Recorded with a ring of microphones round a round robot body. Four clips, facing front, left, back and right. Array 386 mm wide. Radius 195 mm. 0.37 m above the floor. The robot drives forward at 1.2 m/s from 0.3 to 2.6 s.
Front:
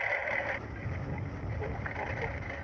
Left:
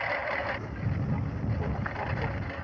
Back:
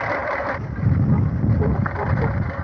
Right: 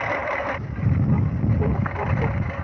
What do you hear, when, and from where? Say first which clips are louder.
0.0 s a lawn mower: right 6 dB, back 11 dB; 155° right; by 2.6 s 150° right